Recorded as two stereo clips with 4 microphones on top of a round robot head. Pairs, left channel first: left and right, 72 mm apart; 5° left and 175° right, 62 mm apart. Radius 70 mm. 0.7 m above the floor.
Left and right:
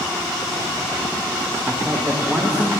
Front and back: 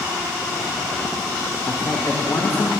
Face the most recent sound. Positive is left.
turn(degrees=-20)